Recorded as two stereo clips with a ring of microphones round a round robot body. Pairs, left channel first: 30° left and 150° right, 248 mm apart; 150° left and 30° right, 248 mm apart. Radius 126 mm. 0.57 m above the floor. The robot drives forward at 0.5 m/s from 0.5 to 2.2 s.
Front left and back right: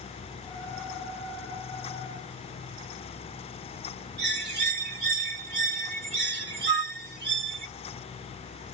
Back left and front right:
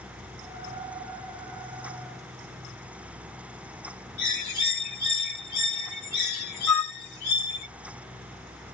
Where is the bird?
160° left, 1.4 m.